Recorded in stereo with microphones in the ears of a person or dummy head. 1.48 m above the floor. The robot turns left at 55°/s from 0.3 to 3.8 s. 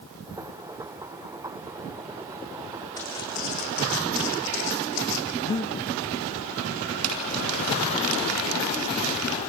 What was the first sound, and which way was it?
Footsteps, 10° left (ahead or behind).